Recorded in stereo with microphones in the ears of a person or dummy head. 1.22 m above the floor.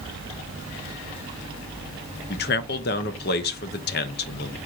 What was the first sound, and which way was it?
A man speaking, 50° left (ahead or behind).